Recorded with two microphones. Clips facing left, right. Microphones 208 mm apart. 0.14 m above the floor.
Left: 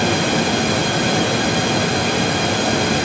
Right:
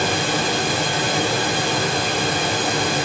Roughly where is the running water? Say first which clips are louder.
Left 4 dB; left.